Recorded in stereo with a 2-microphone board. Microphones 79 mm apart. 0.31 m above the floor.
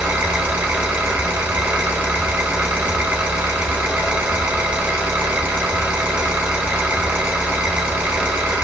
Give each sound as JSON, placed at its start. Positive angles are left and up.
{"t": 0.0, "sound": "an engine running", "side_deg": -20, "distance_m": 0.9}